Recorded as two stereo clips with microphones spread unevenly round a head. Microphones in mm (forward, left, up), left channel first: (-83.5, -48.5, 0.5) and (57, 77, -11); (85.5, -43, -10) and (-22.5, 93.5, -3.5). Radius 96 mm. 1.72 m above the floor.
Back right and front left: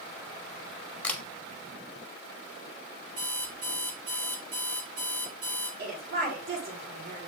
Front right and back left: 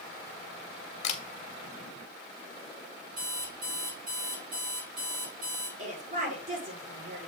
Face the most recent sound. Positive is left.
turn(degrees=80)